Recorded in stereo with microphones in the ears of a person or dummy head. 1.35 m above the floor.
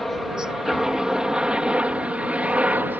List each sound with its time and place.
0.0 s a helicopter: centre (ahead or behind); by 3.0 s 10° right (ahead or behind)